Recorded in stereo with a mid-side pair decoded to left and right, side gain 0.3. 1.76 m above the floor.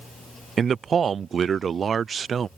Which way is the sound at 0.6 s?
60° right.